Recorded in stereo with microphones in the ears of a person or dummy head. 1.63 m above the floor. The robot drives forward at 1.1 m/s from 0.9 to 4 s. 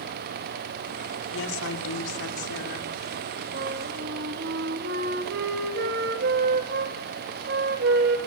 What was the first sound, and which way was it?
A woman speaking, 85° left.